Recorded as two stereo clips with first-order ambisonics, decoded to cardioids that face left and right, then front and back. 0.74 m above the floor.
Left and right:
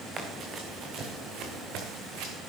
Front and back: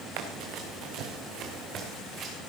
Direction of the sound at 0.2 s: 160° right.